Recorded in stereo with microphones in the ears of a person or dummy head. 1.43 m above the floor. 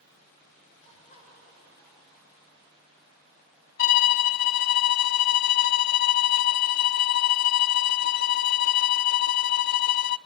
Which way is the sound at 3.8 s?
50° left (ahead or behind).